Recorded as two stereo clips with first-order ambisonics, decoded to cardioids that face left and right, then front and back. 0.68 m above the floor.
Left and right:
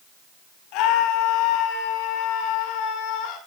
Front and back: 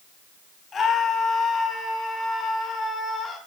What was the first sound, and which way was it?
A scream, 70° left.